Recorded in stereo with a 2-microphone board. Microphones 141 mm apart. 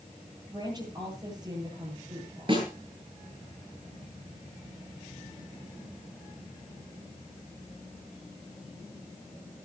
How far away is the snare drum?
About 8.5 m.